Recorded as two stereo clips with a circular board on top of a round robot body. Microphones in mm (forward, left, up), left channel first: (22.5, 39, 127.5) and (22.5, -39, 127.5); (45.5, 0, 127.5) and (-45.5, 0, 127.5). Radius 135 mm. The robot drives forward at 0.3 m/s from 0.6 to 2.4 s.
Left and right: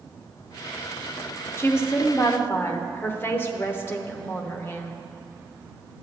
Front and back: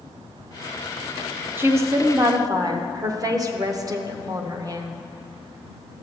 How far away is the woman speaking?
About 0.8 m.